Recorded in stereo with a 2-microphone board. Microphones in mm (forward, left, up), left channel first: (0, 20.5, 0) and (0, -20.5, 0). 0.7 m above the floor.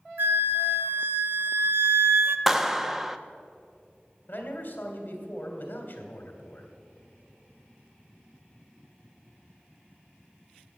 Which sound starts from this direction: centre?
A clap, at 2.5 s.